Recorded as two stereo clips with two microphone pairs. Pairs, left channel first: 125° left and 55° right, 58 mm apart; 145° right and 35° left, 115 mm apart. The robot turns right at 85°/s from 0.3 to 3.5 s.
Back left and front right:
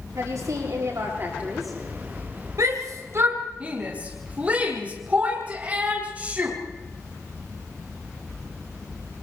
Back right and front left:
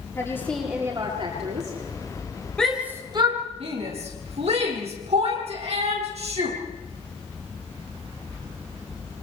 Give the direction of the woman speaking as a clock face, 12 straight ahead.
3 o'clock.